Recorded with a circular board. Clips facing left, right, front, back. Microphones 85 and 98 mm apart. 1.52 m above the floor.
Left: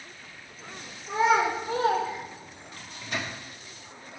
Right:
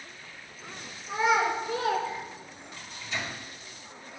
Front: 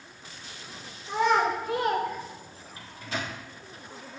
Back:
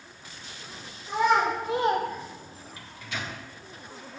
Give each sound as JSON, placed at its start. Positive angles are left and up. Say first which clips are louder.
{"t": 1.1, "sound": "a child speaking", "louder": "left 2 dB, back 1 dB", "azimuth_deg": 100, "distance_m": 1.7}
{"t": 2.8, "sound": "a microwave", "louder": "left 2 dB, front 3 dB", "azimuth_deg": 55, "distance_m": 1.3}